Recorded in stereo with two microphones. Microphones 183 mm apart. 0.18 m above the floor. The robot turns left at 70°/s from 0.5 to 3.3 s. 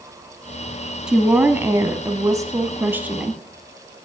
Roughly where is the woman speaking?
Centre.